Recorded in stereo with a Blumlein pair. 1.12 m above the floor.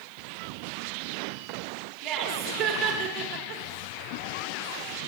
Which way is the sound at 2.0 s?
35° right.